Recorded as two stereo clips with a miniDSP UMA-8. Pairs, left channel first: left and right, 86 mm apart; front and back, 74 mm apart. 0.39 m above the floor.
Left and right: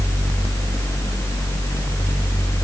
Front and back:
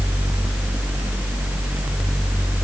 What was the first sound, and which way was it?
Only background noise.